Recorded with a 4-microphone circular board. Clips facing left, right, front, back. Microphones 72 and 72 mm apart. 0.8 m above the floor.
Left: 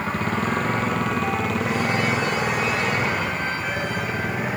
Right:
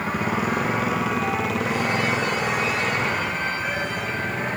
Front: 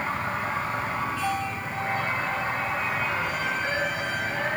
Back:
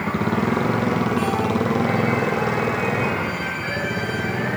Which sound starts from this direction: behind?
A motorcycle, at 0.0 s.